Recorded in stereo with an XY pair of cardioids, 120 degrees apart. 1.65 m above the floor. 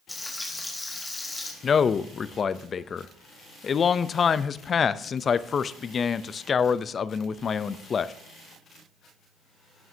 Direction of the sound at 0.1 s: 10° left.